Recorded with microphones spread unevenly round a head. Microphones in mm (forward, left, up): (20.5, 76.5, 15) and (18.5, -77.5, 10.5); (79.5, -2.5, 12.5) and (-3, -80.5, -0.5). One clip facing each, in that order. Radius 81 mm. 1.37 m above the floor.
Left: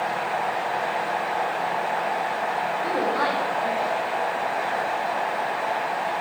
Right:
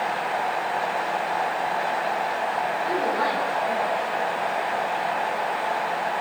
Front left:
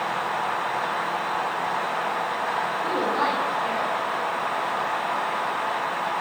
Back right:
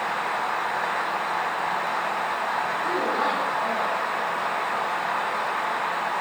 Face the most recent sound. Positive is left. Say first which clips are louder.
# left 1 dB, front left 1 dB
turn(degrees=70)